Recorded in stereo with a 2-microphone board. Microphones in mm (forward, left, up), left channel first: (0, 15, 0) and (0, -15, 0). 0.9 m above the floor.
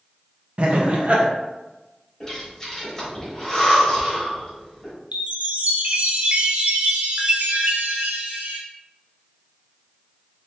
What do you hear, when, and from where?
0.6 s laughter: 45° right (ahead or behind), 0.7 m
2.2 s breathing: 15° left (ahead or behind), 1.7 m
5.1 s a chime: 50° right (ahead or behind), 0.6 m